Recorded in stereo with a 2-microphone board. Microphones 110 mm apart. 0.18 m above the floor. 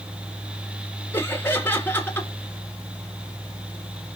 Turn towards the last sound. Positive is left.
turn(degrees=20)  # may be behind; listen again after turning